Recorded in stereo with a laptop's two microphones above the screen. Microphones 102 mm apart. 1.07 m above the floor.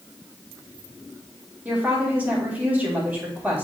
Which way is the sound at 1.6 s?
15° right (ahead or behind).